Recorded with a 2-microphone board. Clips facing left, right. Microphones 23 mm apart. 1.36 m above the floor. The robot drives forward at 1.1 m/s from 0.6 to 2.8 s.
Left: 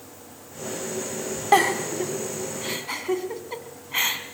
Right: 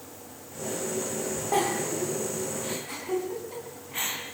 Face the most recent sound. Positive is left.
turn(degrees=60)  # may be behind; listen again after turning